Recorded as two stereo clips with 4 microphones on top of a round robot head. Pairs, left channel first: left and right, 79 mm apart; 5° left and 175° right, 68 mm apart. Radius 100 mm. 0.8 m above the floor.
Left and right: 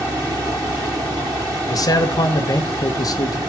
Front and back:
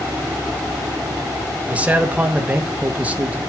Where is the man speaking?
120° left, 1.4 m.